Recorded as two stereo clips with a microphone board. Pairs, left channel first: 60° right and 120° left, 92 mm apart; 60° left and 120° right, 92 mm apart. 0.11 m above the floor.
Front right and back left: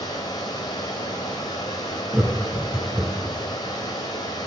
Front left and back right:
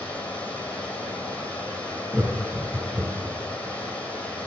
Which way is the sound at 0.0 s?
15° right.